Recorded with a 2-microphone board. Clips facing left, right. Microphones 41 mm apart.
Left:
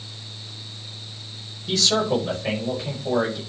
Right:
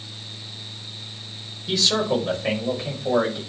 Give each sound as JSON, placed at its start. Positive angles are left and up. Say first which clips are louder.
{"t": 1.7, "sound": "a man speaking", "louder": "even", "side_deg": -10, "distance_m": 4.5}